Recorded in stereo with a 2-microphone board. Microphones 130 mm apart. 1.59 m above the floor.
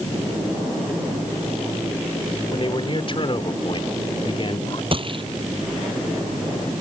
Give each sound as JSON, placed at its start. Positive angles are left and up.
{"t": 2.5, "sound": "a man speaking", "side_deg": 40}
{"t": 4.9, "sound": "a gunshot", "side_deg": -40}